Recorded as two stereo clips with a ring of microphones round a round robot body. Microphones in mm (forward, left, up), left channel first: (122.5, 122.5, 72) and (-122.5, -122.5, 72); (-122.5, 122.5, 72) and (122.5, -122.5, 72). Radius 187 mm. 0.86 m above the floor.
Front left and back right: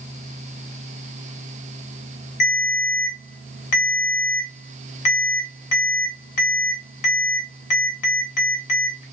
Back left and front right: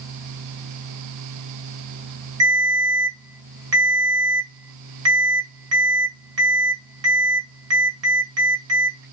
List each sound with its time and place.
2.4 s a ringtone: 10° left, 2 m